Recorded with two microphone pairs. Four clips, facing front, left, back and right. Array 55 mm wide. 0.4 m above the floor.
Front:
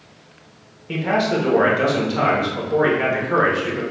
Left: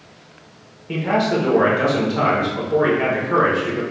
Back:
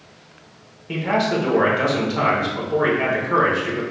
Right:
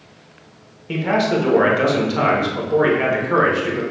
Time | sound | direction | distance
0.9 | a man speaking | 90° right | 0.8 m